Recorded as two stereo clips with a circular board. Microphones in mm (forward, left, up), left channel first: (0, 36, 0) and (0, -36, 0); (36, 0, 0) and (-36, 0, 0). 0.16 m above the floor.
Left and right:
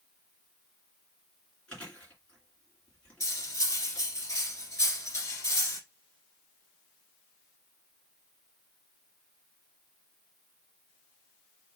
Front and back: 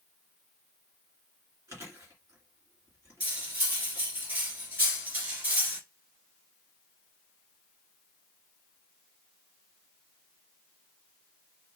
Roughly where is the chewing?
Behind.